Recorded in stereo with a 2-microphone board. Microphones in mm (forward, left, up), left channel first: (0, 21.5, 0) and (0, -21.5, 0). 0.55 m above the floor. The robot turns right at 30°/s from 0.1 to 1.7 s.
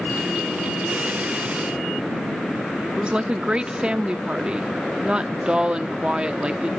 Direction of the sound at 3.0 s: 20° right (ahead or behind).